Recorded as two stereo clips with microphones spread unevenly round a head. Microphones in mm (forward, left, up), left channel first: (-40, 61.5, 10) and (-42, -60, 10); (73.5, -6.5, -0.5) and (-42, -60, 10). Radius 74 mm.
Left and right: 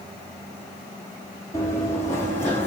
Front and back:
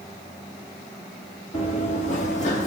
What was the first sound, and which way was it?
Running footsteps, 30° left.